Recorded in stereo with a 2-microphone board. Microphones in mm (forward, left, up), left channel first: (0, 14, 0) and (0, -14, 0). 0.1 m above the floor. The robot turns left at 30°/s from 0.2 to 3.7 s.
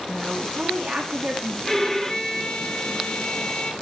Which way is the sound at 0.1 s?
Straight ahead.